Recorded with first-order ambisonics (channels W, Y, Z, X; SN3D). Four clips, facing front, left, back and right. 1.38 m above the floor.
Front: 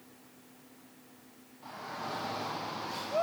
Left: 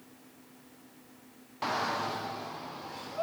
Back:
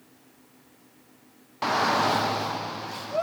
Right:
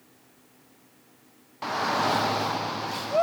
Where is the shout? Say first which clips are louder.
Right 6 dB, back 18 dB; straight behind, 0.5 m; by 3.2 s 95° right, 1.1 m.